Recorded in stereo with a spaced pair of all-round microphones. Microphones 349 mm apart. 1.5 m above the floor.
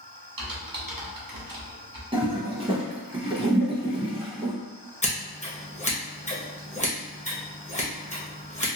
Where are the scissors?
20° left (ahead or behind), 0.9 m.